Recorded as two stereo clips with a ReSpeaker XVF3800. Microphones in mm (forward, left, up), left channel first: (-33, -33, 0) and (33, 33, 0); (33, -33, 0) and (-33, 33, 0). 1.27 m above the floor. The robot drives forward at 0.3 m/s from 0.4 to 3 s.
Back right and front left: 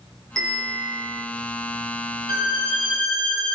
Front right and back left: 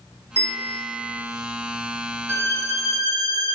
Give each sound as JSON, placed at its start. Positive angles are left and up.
{"t": 0.4, "sound": "a bell", "azimuth_deg": 135, "distance_m": 1.2}
{"t": 2.3, "sound": "a violin", "azimuth_deg": 75, "distance_m": 1.0}